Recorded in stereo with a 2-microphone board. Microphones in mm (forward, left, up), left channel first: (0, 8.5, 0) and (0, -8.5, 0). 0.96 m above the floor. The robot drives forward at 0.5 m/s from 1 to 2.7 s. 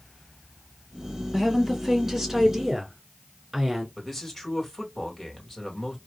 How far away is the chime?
I don't hear a chime.